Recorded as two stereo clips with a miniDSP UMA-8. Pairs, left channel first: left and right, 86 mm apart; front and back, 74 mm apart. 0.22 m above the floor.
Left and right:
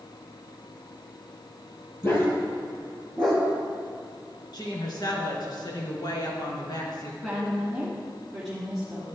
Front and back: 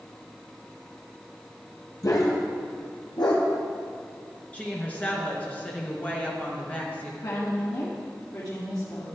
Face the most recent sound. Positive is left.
turn(degrees=0)